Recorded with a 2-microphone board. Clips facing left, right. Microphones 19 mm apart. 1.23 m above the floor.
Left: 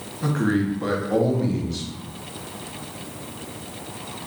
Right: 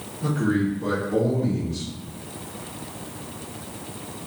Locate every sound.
0.2 s a man speaking: 60° left (ahead or behind), 0.7 m